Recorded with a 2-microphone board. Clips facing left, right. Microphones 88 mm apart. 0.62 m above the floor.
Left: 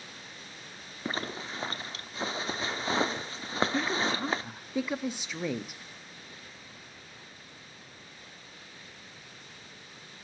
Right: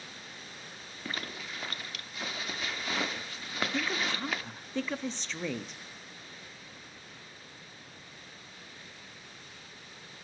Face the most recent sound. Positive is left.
turn(degrees=10)  # may be behind; listen again after turning